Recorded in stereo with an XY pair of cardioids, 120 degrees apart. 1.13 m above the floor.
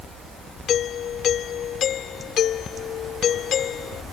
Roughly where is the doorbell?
Ahead left.